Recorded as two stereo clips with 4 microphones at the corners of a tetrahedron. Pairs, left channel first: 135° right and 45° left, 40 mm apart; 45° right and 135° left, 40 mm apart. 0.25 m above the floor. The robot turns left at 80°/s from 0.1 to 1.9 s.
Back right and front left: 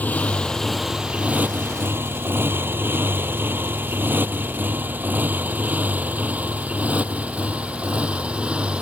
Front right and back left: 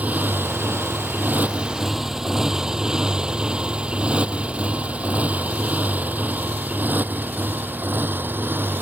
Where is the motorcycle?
Straight behind; by 8.8 s 105° left.